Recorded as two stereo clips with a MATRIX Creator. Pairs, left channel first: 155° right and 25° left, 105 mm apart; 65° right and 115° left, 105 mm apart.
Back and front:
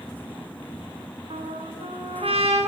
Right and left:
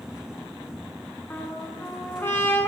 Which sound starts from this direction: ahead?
A trumpet, at 1.3 s.